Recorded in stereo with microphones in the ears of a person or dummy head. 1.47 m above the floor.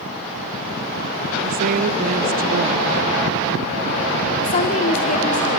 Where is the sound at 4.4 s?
40° left (ahead or behind), 1.6 m.